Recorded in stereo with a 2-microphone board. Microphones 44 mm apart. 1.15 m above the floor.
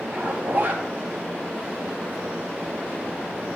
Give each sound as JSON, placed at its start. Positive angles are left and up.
{"t": 0.1, "sound": "a zipper", "side_deg": -40, "distance_m": 2.0}